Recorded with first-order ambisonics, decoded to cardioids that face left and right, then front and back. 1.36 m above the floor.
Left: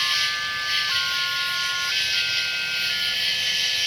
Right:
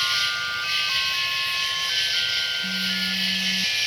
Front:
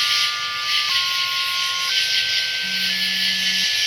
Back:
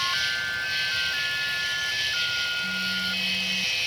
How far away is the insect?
About 1.4 m.